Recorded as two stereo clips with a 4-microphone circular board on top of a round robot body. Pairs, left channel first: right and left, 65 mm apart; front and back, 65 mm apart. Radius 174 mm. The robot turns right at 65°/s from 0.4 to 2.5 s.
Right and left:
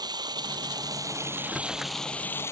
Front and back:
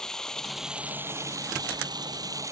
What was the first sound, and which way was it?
Running water, 80° left.